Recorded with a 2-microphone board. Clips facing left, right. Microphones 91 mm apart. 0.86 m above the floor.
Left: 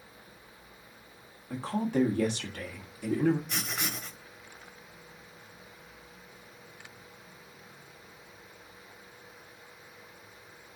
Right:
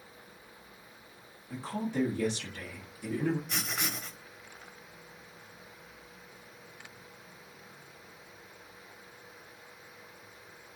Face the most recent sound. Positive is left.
turn(degrees=0)  # may be behind; listen again after turning